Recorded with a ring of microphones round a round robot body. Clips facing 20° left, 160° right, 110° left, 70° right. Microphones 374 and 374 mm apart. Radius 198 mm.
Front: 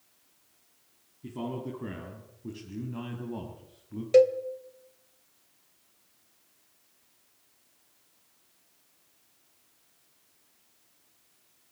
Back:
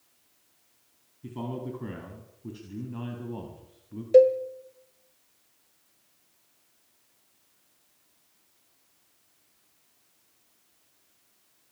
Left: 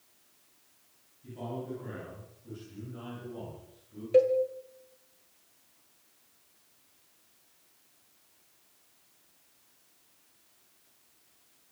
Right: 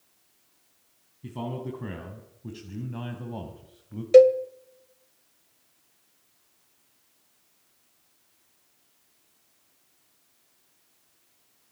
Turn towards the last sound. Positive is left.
turn(degrees=-45)